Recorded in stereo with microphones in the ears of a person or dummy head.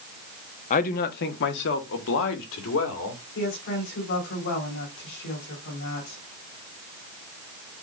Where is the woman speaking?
55° left (ahead or behind), 4.5 m.